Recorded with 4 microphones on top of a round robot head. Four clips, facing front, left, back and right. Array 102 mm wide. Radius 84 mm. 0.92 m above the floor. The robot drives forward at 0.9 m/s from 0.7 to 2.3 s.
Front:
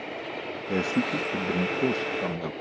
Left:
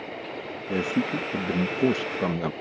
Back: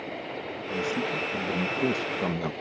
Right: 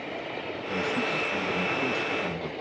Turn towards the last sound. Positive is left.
turn(degrees=105)